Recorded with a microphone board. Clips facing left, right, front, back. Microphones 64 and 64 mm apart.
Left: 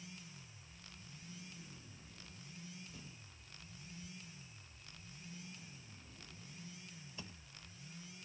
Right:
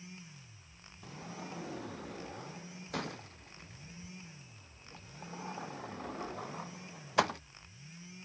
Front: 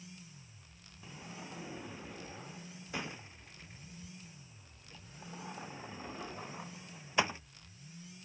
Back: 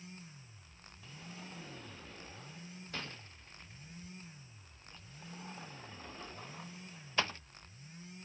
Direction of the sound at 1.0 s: 75° right.